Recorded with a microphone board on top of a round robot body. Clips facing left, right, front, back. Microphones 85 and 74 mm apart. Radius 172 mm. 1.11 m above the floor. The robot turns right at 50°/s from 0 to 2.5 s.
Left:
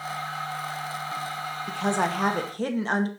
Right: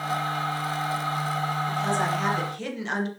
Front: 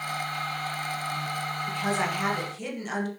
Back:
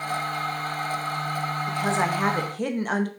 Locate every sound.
1.7 s a woman speaking: 100° left, 2 m; by 3.1 s 140° left, 2 m